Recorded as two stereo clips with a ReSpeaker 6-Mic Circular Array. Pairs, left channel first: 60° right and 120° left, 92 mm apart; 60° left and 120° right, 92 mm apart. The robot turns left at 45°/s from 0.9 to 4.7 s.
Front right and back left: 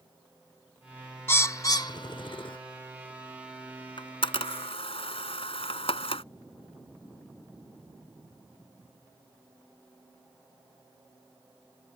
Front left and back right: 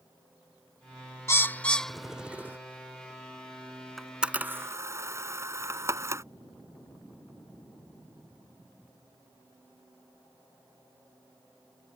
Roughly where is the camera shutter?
Ahead right.